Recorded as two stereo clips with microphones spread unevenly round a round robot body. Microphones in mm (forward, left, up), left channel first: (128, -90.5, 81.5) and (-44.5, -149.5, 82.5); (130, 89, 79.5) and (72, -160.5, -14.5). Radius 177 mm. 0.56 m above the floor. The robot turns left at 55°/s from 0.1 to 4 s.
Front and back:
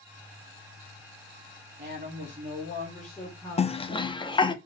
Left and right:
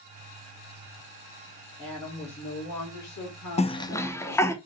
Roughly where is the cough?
Ahead.